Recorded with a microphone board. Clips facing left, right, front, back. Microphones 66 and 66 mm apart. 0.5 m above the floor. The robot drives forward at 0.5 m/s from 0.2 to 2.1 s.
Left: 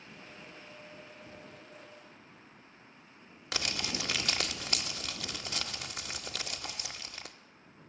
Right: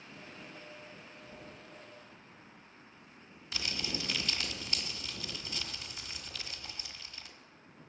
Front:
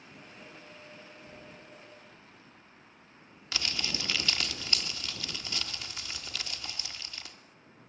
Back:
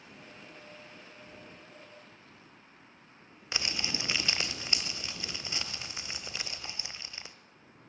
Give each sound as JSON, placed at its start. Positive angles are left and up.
{"t": 1.2, "sound": "a thud", "azimuth_deg": 95, "distance_m": 8.5}
{"t": 3.5, "sound": "crumpling", "azimuth_deg": 110, "distance_m": 1.0}